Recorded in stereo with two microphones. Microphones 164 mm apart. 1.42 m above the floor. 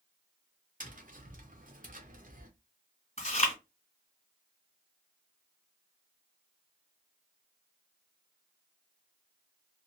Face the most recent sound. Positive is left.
turn(degrees=40)  # may be behind; listen again after turning